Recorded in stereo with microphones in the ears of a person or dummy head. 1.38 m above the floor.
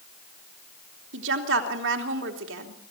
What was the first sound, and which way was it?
A woman speaking, 75° right (ahead or behind).